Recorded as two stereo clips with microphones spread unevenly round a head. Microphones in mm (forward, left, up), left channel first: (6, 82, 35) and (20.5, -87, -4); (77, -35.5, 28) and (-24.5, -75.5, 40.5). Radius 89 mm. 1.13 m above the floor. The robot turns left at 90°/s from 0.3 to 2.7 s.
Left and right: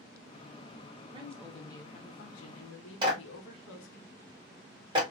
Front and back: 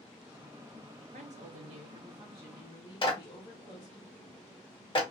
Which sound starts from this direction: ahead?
A clap, at 3.0 s.